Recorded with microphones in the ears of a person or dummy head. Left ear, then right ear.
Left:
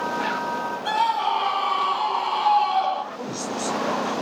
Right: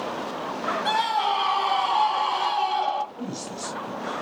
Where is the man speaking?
15° left (ahead or behind), 7.5 m.